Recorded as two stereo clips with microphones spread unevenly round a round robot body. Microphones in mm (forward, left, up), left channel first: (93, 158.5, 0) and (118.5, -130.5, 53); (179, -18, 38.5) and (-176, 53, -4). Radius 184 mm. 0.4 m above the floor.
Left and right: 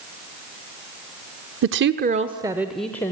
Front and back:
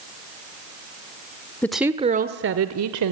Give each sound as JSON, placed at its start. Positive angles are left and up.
{"t": 1.6, "sound": "a woman speaking", "azimuth_deg": -105, "distance_m": 0.8}